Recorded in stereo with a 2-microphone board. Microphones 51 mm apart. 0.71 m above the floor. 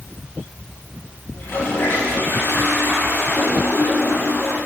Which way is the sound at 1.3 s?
50° left (ahead or behind).